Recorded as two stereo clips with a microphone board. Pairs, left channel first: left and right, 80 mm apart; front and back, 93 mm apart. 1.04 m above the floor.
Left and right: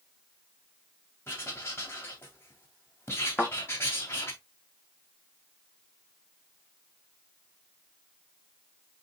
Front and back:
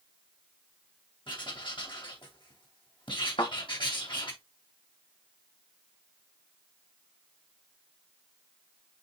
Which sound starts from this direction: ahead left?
Writing, at 1.3 s.